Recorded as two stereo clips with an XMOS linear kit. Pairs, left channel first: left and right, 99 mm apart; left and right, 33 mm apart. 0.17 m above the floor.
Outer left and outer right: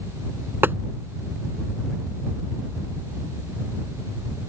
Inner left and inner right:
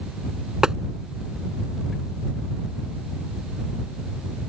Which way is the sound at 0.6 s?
20° right (ahead or behind).